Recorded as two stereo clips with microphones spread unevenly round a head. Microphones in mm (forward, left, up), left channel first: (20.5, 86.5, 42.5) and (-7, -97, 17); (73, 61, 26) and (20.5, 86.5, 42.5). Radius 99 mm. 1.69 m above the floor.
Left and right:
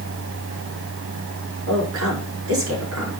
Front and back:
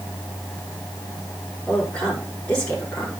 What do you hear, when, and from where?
1.7 s a woman speaking: 105° right, 5 m